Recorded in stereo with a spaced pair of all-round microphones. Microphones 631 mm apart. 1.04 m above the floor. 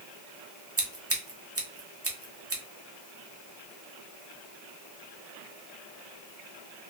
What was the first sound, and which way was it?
Scissors, 25° right (ahead or behind).